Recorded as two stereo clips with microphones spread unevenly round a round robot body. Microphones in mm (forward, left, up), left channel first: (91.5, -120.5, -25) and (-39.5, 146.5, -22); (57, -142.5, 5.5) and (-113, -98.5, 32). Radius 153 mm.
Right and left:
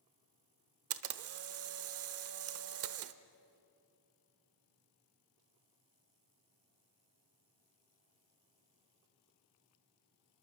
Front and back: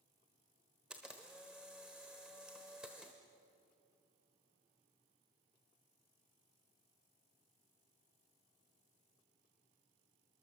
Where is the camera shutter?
75° left, 0.9 m.